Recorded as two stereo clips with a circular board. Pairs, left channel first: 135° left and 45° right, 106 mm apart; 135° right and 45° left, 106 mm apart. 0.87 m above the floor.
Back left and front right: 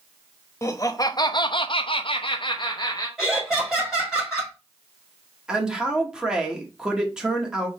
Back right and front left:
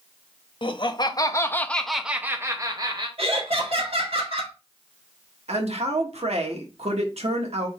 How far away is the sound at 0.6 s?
About 0.9 m.